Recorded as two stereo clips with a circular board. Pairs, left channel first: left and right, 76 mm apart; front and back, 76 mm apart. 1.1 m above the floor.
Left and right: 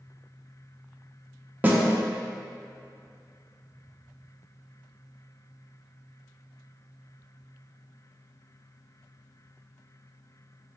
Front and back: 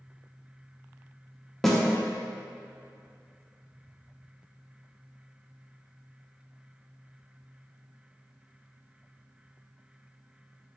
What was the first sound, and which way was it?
A snare drum, 80° right.